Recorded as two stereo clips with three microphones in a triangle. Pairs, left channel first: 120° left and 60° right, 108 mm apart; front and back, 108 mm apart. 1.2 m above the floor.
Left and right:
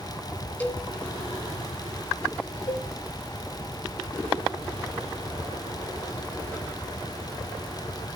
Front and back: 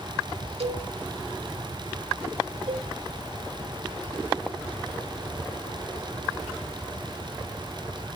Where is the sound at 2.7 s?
170° left, 2.5 m.